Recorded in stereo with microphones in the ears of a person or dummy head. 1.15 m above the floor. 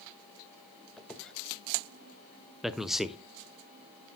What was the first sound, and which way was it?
A squeak, 5° left (ahead or behind).